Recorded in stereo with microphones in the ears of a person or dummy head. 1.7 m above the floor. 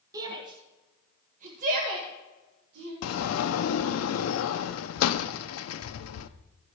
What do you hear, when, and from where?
0.1 s a shout: 25° right (ahead or behind), 1.6 m; by 2.9 s 75° right (ahead or behind), 1.8 m
3.0 s a sliding door: 85° left, 0.6 m